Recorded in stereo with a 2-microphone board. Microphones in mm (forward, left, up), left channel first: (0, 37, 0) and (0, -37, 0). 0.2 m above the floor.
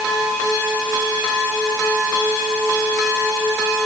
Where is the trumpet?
No trumpet in this recording.